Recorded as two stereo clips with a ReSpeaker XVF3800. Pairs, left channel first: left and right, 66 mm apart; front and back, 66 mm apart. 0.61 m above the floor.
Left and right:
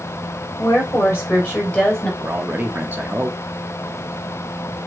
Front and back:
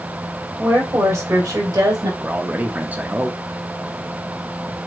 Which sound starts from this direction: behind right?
A man speaking, at 2.2 s.